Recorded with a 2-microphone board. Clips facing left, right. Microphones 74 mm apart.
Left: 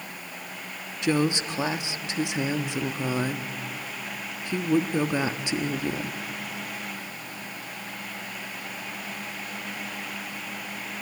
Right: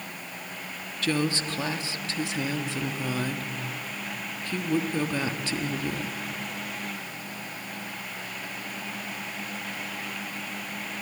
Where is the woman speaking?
20° left (ahead or behind), 1.0 m.